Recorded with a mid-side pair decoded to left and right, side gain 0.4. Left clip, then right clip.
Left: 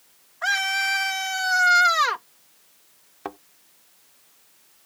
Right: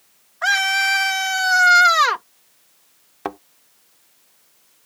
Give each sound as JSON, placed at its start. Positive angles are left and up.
{"t": 0.4, "sound": "a scream", "azimuth_deg": -40}
{"t": 3.2, "sound": "a thud", "azimuth_deg": -50}